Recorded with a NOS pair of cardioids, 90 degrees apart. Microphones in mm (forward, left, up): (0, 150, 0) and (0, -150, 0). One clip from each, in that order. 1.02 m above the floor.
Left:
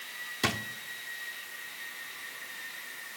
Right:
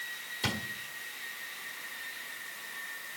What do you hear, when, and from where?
0.4 s a drawer: 45° left, 1.2 m